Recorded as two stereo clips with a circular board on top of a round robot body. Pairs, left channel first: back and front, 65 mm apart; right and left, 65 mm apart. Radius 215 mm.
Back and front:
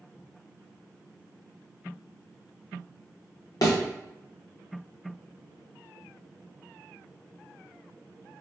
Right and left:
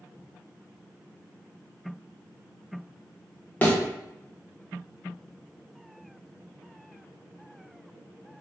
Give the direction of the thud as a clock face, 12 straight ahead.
5 o'clock.